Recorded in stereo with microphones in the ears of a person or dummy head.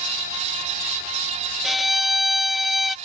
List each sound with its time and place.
1.6 s a violin: 5° left (ahead or behind)